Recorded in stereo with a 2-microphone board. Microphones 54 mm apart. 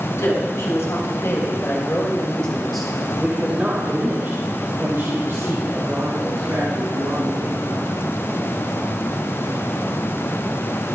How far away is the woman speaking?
About 4 m.